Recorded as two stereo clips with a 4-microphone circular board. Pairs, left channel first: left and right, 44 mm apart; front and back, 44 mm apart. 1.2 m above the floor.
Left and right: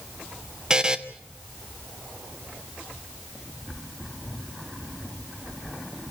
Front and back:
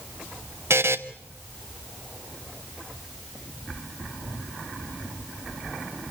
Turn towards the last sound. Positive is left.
turn(degrees=-165)